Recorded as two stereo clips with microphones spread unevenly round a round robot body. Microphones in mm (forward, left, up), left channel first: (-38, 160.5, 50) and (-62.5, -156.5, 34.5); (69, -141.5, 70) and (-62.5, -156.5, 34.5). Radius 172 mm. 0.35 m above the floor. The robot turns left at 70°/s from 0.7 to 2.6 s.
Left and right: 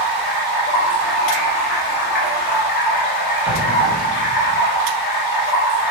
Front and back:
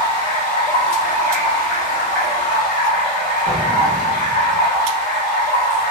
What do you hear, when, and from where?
0.0 s running water: 115° right, 1.7 m; by 5.9 s 110° left, 1.7 m
3.5 s an explosion: 175° left, 0.9 m